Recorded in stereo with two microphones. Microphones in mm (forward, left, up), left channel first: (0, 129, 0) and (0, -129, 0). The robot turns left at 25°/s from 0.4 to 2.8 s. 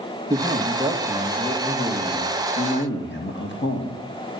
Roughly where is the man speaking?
Behind.